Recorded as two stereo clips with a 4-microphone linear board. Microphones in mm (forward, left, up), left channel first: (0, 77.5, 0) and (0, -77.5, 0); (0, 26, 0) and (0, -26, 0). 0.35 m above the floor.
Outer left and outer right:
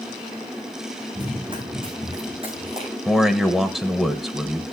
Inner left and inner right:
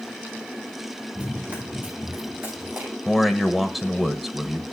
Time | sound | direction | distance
1.1 | running footsteps | 30° right (ahead or behind) | 3.5 m
3.0 | a man speaking | centre (ahead or behind) | 1.1 m